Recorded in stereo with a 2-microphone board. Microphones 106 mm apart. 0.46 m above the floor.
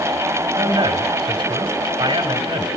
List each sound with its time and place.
0.6 s a man speaking: 40° right (ahead or behind), 1.9 m